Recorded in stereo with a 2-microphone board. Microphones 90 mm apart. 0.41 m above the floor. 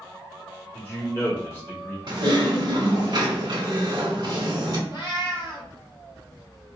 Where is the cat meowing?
55° left (ahead or behind), 1.3 m.